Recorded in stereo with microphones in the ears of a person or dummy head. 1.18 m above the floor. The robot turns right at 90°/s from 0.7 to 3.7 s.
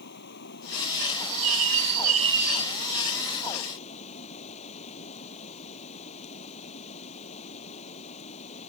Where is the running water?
125° left; by 8.7 s 35° left.